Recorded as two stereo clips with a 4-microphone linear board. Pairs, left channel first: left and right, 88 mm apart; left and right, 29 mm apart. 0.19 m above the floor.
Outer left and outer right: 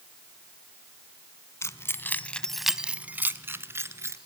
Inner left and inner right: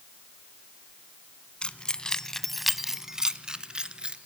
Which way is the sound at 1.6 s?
30° left (ahead or behind).